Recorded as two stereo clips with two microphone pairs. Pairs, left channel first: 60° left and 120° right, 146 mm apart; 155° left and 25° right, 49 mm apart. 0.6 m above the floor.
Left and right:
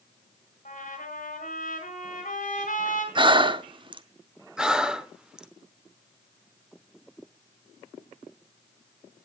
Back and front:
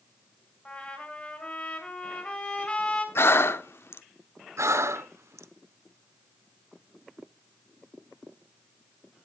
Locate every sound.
0.7 s a trumpet: 90° left, 4 m
3.1 s breathing: 175° right, 0.6 m
4.6 s breathing: 30° right, 0.8 m